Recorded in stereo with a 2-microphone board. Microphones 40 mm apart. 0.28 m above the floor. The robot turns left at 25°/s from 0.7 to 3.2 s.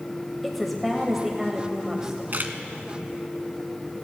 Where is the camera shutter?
55° right (ahead or behind), 0.8 m; by 2.5 s 60° right (ahead or behind), 0.8 m.